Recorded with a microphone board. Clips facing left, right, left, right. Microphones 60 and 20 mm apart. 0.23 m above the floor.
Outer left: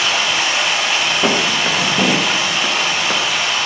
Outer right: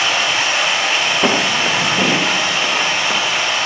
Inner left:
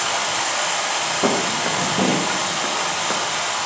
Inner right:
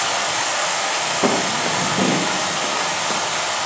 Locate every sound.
0.0 s running water: 10° right (ahead or behind), 10 m
1.2 s footsteps: 5° right (ahead or behind), 3 m; by 3.2 s 15° left (ahead or behind), 3.5 m